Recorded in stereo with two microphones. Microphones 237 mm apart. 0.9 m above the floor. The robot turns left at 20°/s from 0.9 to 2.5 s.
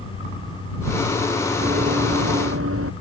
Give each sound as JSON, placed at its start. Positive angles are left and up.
{"t": 1.6, "sound": "running footsteps", "side_deg": -45}